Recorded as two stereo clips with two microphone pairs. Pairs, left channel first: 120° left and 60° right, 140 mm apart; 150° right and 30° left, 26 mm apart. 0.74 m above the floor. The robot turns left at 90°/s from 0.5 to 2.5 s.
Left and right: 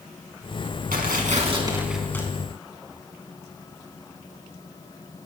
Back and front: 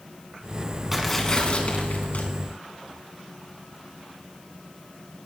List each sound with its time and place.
0.9 s tearing paper: 50° right, 3 m; by 2.3 s 170° right, 3 m